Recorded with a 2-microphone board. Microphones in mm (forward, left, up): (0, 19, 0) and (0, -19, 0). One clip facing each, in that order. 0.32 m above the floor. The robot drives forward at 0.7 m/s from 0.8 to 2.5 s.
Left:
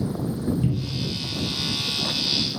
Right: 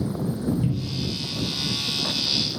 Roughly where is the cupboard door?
Centre.